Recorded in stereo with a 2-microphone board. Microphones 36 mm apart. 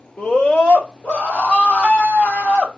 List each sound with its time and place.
0.2 s a scream: 35° left (ahead or behind), 1.7 m; by 2.7 s 55° left (ahead or behind), 3.5 m